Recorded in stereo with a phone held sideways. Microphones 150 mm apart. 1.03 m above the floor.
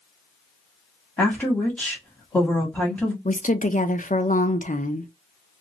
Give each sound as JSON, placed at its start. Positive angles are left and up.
{"t": 1.2, "sound": "a woman speaking", "side_deg": 10, "distance_m": 1.3}
{"t": 3.2, "sound": "a woman speaking", "side_deg": 60, "distance_m": 0.5}